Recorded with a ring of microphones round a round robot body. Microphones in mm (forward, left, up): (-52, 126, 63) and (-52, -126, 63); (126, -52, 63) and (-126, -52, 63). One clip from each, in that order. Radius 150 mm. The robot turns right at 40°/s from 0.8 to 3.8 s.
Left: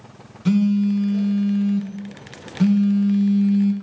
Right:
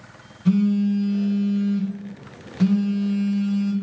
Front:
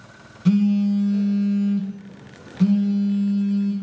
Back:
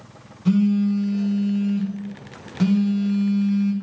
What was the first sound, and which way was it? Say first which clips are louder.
A phone buzzing: left 1 dB, even; 55° left.